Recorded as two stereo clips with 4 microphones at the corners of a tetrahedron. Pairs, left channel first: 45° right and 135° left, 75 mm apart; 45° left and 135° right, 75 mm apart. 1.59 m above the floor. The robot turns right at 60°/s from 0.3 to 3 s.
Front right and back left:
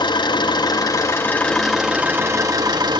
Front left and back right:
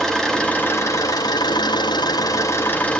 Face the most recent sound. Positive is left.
turn(degrees=125)